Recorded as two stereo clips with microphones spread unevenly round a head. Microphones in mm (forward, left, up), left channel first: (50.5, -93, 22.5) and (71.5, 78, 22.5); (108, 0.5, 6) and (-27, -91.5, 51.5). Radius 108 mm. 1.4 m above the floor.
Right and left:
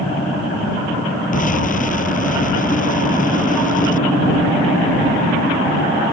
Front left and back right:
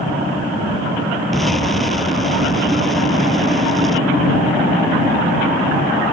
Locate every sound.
1.3 s an explosion: 55° right